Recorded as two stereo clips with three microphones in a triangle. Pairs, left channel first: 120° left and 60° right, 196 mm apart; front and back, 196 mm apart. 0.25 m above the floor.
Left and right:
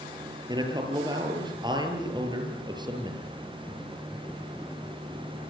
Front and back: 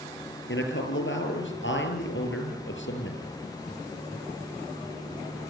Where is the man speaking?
10° left, 5.5 m.